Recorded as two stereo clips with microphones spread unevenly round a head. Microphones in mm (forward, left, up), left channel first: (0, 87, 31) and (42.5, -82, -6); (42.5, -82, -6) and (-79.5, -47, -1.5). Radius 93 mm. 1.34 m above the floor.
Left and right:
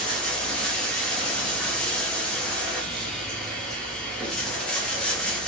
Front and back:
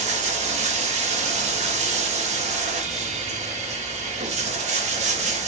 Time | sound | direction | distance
0.0 | running water | 175° right | 1.0 m